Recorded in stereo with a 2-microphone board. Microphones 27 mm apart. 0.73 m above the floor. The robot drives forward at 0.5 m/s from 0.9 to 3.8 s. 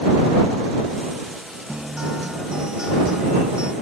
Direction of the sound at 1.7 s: 30° right (ahead or behind).